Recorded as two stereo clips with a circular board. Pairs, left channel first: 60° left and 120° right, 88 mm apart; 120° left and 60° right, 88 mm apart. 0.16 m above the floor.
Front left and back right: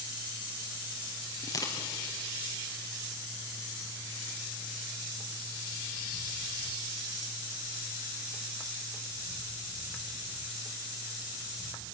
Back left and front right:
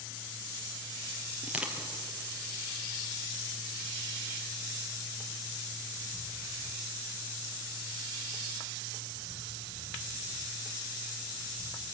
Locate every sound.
1.4 s crushing: 15° left, 3 m